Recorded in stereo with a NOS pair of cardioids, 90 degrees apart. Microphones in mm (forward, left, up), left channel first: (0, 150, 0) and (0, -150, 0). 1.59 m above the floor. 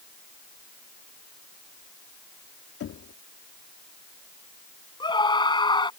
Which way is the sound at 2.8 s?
55° left.